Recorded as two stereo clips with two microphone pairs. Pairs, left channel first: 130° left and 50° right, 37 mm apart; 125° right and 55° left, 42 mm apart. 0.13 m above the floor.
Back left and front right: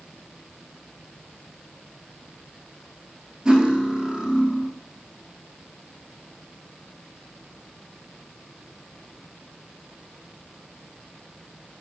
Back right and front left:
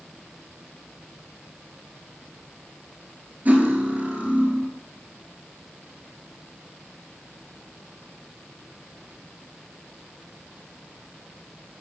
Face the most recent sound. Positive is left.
turn(degrees=15)